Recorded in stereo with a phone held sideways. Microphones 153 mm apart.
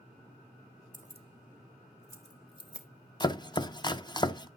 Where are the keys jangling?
55° right (ahead or behind), 0.9 m; by 2.9 s 35° left (ahead or behind), 2.5 m.